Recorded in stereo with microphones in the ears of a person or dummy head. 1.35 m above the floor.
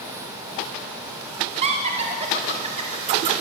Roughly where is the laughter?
Right.